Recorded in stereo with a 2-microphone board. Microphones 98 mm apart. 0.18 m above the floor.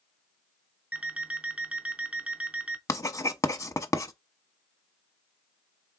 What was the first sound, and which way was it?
An alarm clock, 15° right (ahead or behind).